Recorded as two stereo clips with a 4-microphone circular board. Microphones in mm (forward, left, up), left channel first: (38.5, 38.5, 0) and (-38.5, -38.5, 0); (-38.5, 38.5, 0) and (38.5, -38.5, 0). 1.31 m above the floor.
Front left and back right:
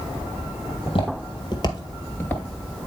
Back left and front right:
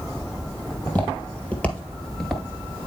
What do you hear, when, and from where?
0.7 s footsteps: 65° left, 2.5 m; by 2.4 s 35° left, 1.3 m